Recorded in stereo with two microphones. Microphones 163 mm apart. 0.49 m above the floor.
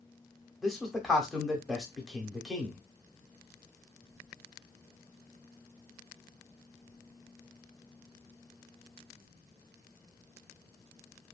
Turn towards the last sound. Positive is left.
turn(degrees=0)  # may be behind; listen again after turning